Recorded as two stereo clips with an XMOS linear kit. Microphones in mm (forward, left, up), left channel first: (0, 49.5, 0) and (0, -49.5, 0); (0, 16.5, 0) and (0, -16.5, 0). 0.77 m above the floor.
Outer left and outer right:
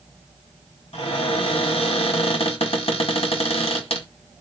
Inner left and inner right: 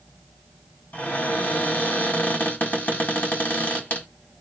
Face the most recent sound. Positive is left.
turn(degrees=75)  # may be behind; listen again after turning